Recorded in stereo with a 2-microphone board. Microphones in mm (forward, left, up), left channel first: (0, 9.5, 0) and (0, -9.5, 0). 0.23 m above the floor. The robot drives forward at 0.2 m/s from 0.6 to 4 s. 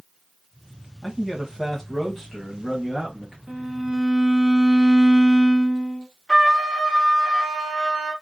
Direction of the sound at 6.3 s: 10° left (ahead or behind).